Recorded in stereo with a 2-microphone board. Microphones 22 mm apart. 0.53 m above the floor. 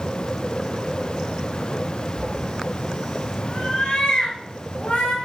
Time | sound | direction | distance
2.2 | a cat meowing | 5° left (ahead or behind) | 4 m